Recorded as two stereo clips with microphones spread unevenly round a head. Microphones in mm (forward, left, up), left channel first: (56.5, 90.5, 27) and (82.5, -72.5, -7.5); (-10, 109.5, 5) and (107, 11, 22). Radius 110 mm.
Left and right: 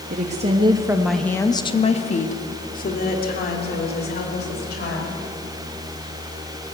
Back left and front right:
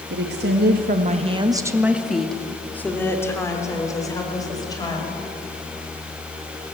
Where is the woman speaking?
45° right, 1.9 m; by 5.2 s 75° left, 6 m.